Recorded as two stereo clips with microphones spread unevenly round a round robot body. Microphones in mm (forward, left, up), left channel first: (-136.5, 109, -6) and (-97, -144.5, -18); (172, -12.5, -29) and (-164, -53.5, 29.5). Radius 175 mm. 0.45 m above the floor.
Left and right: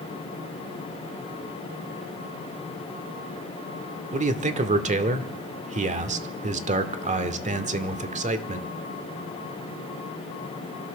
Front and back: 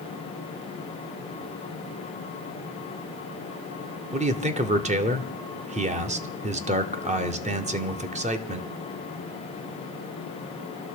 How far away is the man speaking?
About 1.0 m.